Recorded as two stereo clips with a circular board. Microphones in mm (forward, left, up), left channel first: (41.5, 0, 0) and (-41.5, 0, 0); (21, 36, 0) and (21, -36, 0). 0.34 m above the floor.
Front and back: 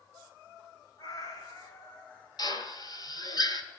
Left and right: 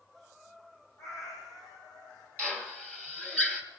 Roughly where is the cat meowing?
Ahead left.